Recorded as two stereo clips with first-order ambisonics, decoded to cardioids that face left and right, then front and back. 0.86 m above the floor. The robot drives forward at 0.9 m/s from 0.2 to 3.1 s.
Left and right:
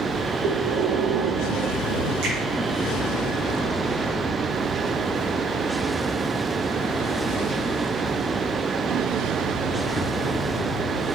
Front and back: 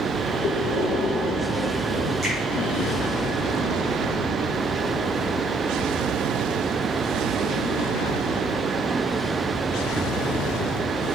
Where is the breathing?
55° right, 1.3 m; by 2.1 s 125° right, 1.3 m.